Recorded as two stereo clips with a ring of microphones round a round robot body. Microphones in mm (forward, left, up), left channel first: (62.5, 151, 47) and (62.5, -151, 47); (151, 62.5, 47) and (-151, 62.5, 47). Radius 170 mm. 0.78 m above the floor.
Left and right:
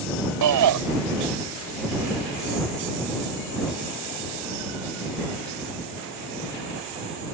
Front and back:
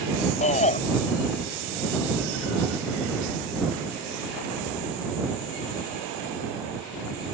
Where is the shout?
70° right.